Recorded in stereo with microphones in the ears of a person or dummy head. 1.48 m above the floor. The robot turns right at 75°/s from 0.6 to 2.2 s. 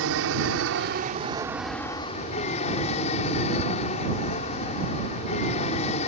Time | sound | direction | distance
0.0 | an aircraft | 80° right | ?